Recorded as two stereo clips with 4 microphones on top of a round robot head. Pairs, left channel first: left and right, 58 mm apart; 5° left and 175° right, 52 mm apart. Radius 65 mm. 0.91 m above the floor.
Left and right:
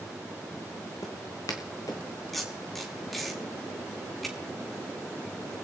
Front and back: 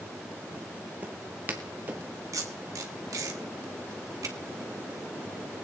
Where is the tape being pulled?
Straight behind, 1.9 m.